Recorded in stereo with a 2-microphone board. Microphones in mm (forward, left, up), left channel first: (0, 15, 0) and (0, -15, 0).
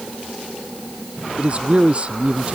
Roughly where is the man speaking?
Right.